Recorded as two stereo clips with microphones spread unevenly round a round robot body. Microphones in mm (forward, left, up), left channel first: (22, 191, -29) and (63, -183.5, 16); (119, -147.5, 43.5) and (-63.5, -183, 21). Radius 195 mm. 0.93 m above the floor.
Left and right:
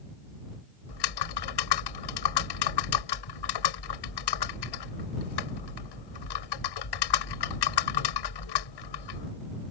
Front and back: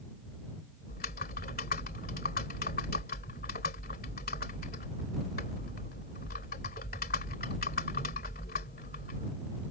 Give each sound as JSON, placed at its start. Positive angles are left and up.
{"t": 0.9, "sound": "typing on a keyboard", "azimuth_deg": 75}